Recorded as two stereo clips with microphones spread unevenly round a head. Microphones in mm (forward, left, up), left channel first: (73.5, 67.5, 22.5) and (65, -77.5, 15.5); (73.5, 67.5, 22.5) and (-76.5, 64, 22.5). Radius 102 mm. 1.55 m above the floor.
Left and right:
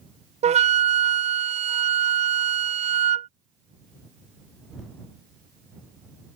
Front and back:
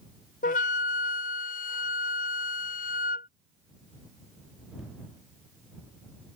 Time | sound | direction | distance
0.4 | a flute | 45° right | ?